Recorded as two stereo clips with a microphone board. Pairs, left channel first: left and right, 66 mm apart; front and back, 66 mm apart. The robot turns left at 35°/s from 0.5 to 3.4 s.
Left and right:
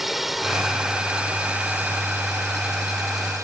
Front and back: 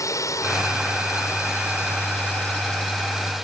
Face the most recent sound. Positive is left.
turn(degrees=-90)